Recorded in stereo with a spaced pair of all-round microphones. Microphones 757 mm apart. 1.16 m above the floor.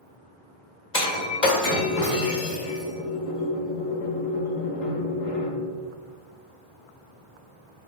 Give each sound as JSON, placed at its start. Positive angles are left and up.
{"t": 0.9, "sound": "breaking glass", "side_deg": 55, "distance_m": 1.2}